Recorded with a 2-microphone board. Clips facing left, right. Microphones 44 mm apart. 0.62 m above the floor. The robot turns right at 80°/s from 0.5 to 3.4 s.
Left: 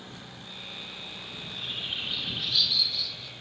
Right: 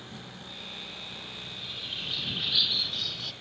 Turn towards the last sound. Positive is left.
turn(degrees=-95)